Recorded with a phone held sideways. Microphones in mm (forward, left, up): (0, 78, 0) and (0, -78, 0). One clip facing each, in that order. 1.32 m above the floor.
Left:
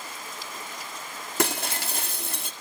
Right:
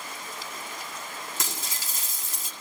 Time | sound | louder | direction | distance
1.4 | breaking glass | left 10 dB | 65° left (ahead or behind) | 1.7 m